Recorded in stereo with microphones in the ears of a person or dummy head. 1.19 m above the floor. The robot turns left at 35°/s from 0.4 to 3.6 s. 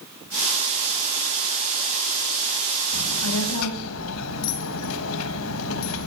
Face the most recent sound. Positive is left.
turn(degrees=80)